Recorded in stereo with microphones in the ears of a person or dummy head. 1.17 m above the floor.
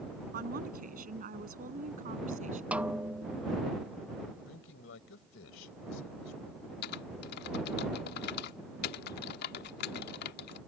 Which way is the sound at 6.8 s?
60° left (ahead or behind).